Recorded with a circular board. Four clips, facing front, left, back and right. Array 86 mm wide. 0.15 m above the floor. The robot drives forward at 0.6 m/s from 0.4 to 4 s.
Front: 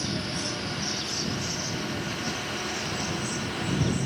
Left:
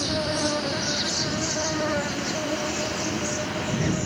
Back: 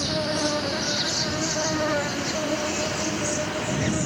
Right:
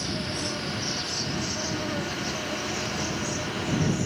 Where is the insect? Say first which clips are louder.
Left 6 dB, back 7 dB; 140° left; by 4.1 s 160° left.